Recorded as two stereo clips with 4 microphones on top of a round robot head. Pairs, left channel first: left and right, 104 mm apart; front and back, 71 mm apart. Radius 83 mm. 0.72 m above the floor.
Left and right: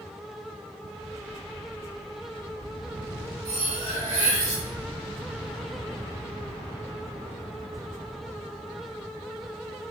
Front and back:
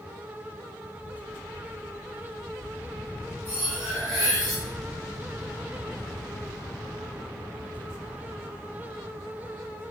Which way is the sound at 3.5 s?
105° right.